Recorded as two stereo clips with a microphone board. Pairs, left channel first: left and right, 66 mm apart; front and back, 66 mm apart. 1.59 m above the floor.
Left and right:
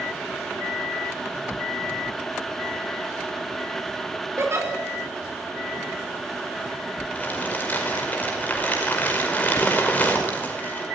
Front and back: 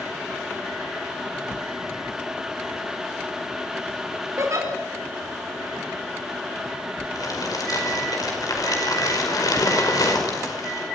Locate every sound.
4.4 s a giggle: 135° right, 4.5 m
7.2 s crumpling: 30° left, 5 m